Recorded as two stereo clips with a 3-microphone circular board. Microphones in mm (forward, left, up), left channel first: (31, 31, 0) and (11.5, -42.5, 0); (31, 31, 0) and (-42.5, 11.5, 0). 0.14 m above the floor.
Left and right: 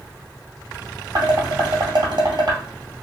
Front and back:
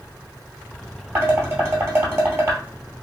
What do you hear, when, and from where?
1.1 s dishes clattering: 110° right, 2 m